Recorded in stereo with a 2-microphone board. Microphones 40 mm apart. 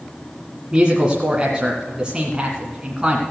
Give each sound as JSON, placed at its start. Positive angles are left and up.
{"t": 0.7, "sound": "a woman speaking", "side_deg": -20, "distance_m": 1.8}